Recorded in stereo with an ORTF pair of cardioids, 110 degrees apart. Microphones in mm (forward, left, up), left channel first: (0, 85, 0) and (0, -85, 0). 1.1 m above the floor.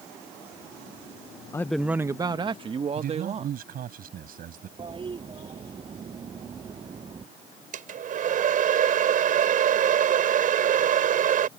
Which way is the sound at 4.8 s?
30° right.